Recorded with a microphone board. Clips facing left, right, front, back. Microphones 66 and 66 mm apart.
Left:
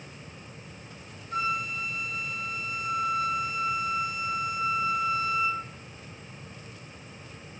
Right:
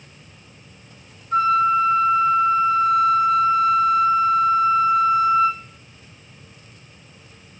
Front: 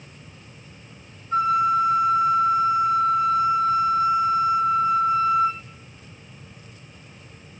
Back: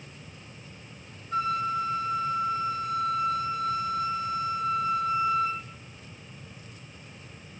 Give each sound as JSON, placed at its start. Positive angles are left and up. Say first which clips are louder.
{"t": 1.3, "sound": "a flute", "louder": "right 14 dB, front 8 dB", "azimuth_deg": -60, "distance_m": 1.4}